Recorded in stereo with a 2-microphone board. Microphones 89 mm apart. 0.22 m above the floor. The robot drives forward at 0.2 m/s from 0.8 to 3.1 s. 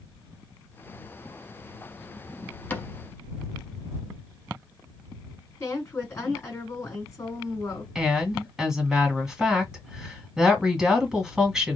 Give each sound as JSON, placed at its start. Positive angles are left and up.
{"t": 2.7, "sound": "a cupboard door", "side_deg": 20, "distance_m": 0.6}
{"t": 5.6, "sound": "a woman speaking", "side_deg": 30, "distance_m": 2.0}
{"t": 8.0, "sound": "a woman speaking", "side_deg": -5, "distance_m": 1.6}